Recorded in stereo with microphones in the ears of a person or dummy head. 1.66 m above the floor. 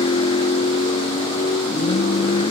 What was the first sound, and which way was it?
A vehicle, 30° left (ahead or behind).